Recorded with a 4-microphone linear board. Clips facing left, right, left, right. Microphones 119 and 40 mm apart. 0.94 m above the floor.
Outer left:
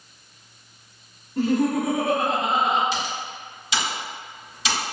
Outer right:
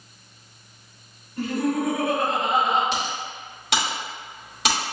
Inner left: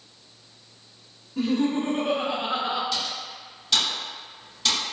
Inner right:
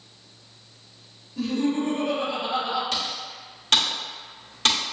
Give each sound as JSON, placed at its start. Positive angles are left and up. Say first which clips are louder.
{"t": 1.4, "sound": "laughter", "louder": "outer left 3 dB, inner left 1 dB", "side_deg": 70, "distance_m": 1.8}
{"t": 2.9, "sound": "typing on a keyboard", "louder": "even, inner right 1 dB", "side_deg": -60, "distance_m": 1.9}